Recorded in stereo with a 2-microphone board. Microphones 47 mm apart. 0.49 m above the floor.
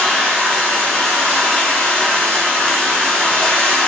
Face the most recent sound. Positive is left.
turn(degrees=20)  # may be behind; listen again after turning